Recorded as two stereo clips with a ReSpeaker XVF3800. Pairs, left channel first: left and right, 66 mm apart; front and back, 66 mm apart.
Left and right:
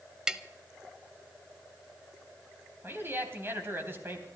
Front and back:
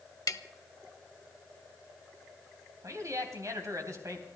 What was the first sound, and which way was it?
Tapping, 10° right.